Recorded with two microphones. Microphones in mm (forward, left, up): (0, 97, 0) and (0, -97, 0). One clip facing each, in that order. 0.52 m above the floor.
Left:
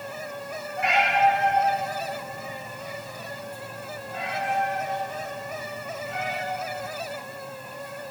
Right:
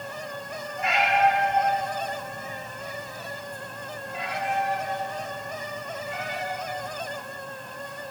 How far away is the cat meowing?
About 6 m.